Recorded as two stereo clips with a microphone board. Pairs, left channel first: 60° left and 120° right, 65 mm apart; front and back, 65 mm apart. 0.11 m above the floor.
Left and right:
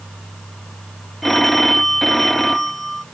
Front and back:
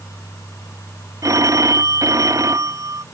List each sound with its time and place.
1.2 s a phone ringing: 145° left